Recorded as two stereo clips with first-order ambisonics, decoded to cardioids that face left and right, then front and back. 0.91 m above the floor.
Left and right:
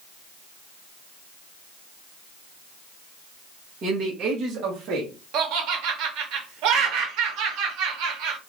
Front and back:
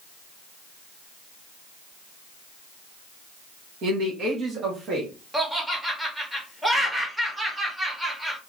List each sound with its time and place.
3.8 s a man speaking: 145° right, 1.0 m; by 5.1 s 125° right, 1.5 m
5.3 s laughter: 95° right, 1.1 m